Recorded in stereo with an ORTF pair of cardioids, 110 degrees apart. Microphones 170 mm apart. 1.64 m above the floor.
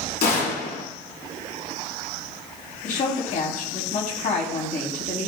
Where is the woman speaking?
50° left, 3.5 m.